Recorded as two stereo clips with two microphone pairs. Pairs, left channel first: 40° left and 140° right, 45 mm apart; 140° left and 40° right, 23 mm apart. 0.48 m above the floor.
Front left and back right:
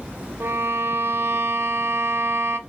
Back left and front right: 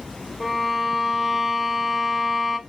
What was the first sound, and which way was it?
A violin, 125° right.